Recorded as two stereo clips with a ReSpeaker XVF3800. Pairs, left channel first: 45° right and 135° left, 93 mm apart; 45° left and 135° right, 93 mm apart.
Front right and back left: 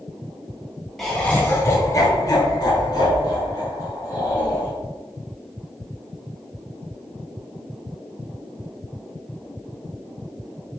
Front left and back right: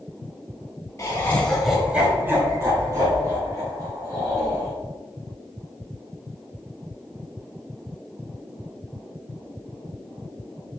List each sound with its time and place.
1.0 s laughter: 40° left, 1.2 m; by 4.7 s 90° right, 4.5 m